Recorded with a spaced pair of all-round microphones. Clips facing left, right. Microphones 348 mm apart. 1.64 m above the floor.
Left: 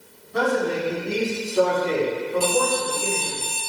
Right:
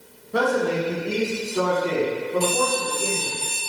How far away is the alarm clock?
About 1.6 m.